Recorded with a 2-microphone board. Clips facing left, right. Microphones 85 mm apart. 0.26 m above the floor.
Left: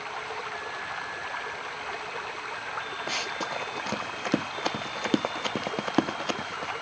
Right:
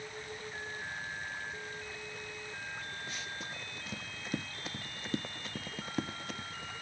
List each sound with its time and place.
0.0 s running water: 85° left
3.1 s running footsteps: 85° left; by 6.7 s 80° left